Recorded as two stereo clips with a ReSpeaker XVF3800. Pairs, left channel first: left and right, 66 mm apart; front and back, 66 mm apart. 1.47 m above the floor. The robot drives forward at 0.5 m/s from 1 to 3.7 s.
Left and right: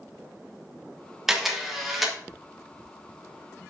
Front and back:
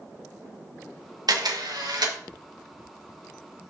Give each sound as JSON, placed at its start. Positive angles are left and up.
{"t": 1.3, "sound": "a camera shutter", "azimuth_deg": -175, "distance_m": 1.5}